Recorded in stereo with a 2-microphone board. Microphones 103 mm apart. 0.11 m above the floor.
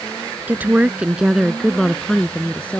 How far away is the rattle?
I don't hear a rattle.